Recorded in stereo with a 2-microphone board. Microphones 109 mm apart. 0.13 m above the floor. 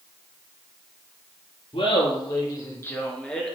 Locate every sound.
1.7 s laughter: 55° left (ahead or behind), 2.5 m; by 3.5 s centre (ahead or behind), 2.5 m